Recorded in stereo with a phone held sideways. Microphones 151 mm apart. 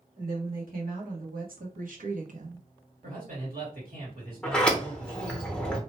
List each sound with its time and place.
0.2 s a woman speaking: 75° right (ahead or behind), 1.7 m; by 2.7 s 45° right (ahead or behind), 0.5 m
3.0 s a man speaking: 85° right, 1.7 m
4.4 s a sliding door: 10° left (ahead or behind), 0.8 m